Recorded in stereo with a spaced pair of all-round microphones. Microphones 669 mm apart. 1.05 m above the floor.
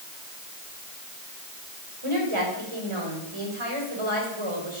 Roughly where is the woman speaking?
Right.